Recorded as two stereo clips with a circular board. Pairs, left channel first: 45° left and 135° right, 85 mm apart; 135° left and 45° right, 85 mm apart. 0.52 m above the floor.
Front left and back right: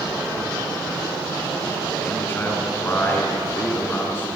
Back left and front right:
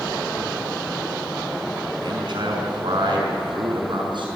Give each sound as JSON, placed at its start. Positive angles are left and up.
{"t": 2.0, "sound": "a man speaking", "azimuth_deg": -20, "distance_m": 5.5}